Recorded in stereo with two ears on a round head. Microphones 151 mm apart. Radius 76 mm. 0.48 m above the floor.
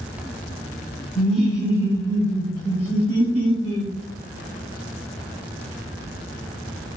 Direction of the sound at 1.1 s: 5° left (ahead or behind).